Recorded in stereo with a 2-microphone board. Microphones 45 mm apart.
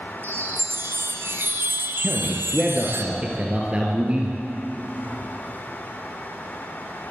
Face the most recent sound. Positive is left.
turn(degrees=-25)  # may be behind; listen again after turning